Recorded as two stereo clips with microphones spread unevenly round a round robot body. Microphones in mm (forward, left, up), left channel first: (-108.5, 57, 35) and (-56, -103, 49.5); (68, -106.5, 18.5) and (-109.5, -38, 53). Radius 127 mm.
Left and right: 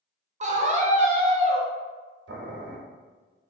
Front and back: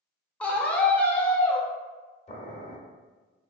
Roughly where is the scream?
Right.